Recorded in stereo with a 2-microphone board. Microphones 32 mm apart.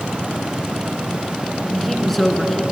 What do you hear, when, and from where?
1.6 s a woman speaking: centre (ahead or behind), 2.5 m; by 2.6 s 15° left (ahead or behind), 2.5 m